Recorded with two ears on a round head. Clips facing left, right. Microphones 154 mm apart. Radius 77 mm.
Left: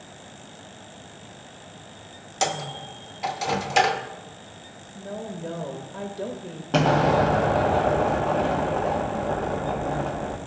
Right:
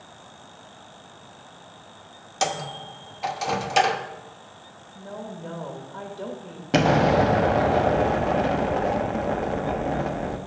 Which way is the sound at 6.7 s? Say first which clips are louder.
Right 1 dB; 20° right (ahead or behind).